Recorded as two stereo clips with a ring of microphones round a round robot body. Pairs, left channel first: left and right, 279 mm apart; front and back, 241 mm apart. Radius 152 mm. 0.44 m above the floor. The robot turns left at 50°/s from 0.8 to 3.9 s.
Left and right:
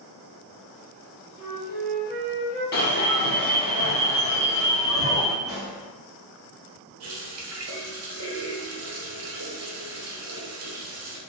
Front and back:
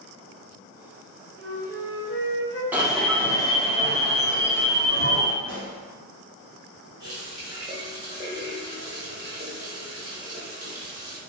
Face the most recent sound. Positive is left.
turn(degrees=-110)